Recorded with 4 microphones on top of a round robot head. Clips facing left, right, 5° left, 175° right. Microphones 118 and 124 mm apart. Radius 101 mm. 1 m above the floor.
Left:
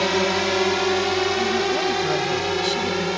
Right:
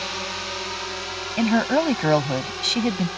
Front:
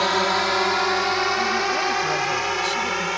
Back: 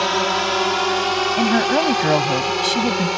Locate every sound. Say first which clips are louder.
0.0 s a drone: left 12 dB, back 1 dB; 100° left; by 3.2 s 120° left
1.4 s a woman speaking: right 2 dB, back 6 dB; 140° right